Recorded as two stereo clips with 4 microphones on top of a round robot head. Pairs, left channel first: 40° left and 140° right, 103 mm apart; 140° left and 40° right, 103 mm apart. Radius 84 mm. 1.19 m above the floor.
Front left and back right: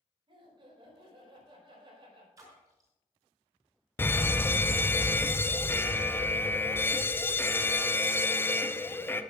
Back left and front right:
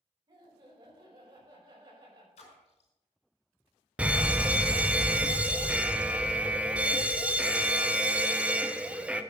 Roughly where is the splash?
Behind.